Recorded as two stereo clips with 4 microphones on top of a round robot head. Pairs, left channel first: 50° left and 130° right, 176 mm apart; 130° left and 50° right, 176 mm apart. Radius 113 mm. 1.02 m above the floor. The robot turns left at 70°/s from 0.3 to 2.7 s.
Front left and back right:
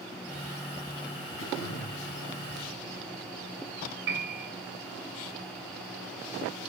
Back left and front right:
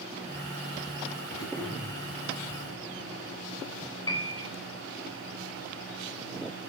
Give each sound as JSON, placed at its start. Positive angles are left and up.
{"t": 1.4, "sound": "throat clearing", "azimuth_deg": 65, "distance_m": 2.0}
{"t": 4.1, "sound": "a piano", "azimuth_deg": -160, "distance_m": 2.5}